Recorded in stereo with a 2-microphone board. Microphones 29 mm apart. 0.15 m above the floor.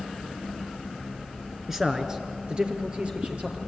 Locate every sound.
1.7 s a man speaking: 15° right (ahead or behind), 2.5 m; by 3.6 s 45° right (ahead or behind), 4 m